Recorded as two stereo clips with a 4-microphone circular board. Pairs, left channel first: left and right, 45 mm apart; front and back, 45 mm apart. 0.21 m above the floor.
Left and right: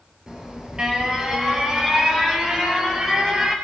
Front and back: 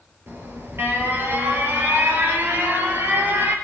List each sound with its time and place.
0.3 s an alarm: 160° right, 3.5 m